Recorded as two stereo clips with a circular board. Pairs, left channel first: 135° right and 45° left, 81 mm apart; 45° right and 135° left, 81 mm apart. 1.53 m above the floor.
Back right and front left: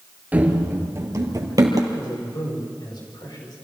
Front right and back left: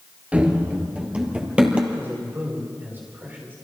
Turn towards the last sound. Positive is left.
turn(degrees=-160)